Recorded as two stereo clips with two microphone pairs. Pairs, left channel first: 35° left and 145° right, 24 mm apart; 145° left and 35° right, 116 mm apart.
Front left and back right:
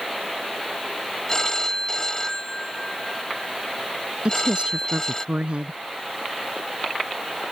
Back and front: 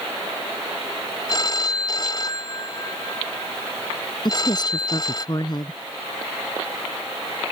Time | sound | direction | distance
1.3 | a phone ringing | 95° left | ?
4.2 | a woman speaking | 165° right | ?